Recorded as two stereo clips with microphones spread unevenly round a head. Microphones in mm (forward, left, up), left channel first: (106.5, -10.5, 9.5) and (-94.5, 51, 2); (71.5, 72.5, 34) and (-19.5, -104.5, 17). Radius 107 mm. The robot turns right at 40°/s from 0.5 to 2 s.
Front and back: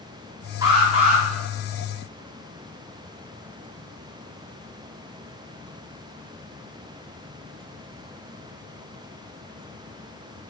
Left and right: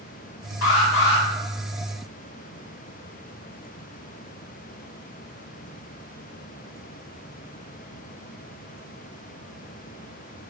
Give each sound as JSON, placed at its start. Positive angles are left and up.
{"t": 0.6, "sound": "an alarm", "azimuth_deg": 90, "distance_m": 2.5}